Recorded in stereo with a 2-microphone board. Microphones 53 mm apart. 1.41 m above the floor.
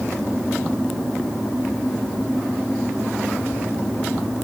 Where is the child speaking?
No child speaking in this recording.